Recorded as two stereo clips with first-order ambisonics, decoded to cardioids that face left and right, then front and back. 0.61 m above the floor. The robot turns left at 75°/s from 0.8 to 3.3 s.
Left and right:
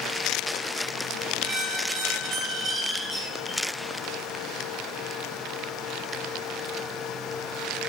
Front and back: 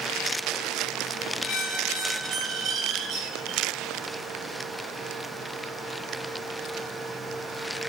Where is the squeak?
50° right, 0.6 m; by 3.6 s 165° left, 0.6 m.